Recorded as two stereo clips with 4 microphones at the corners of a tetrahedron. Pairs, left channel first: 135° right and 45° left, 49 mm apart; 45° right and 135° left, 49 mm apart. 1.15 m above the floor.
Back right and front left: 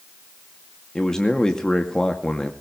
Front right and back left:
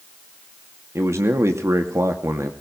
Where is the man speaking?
150° left, 2.5 m.